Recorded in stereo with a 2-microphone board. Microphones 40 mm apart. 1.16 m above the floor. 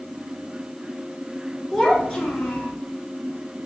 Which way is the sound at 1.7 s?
Centre (ahead or behind).